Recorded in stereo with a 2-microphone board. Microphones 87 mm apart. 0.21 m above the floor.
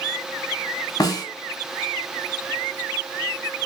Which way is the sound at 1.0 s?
45° left (ahead or behind).